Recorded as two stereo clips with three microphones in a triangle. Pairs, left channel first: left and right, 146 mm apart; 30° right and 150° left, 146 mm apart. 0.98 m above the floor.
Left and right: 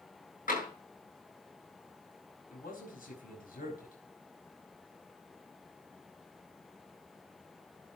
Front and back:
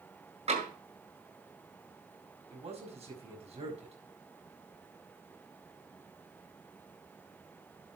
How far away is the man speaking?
About 5 m.